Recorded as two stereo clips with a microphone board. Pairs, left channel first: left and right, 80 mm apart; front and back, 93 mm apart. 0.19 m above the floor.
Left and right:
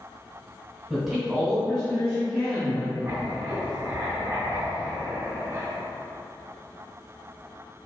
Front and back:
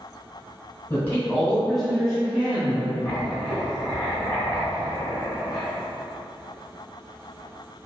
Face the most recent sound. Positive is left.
turn(degrees=-85)